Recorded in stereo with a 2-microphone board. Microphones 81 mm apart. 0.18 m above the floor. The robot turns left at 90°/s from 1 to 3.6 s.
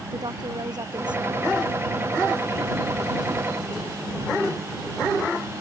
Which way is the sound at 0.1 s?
55° right.